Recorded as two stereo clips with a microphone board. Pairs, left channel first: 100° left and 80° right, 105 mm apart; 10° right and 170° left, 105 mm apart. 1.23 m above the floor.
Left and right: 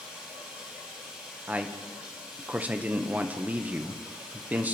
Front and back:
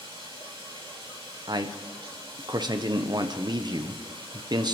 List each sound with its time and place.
0.0 s running water: 155° right, 6.5 m
1.5 s a man speaking: 150° right, 0.9 m